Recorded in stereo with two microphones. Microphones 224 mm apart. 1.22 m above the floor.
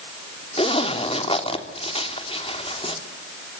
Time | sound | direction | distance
0.6 | a zipper | 25° left (ahead or behind) | 3 m